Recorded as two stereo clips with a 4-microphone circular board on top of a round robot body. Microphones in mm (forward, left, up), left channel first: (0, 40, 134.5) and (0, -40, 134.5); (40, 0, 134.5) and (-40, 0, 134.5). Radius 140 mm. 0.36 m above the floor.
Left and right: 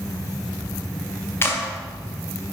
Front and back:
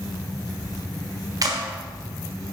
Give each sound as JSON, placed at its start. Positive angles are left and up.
{"t": 1.4, "sound": "a clap", "azimuth_deg": 145, "distance_m": 1.8}